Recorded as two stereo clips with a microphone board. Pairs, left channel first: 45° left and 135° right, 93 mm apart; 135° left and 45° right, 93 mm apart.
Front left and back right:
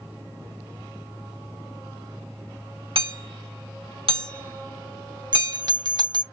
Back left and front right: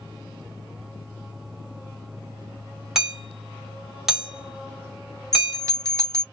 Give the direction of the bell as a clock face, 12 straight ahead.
3 o'clock.